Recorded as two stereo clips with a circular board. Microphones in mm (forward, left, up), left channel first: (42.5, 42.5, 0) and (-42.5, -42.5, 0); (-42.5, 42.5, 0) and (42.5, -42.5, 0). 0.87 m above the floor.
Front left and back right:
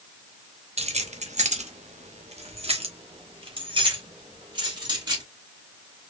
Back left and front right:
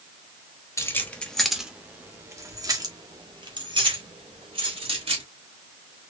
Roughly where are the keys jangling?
Behind.